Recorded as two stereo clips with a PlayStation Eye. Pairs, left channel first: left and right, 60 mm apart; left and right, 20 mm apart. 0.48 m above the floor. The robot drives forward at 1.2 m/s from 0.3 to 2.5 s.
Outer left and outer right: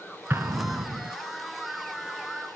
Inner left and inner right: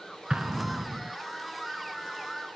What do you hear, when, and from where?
0.3 s an explosion: 40° right (ahead or behind), 0.9 m; by 1.1 s 55° right (ahead or behind), 0.7 m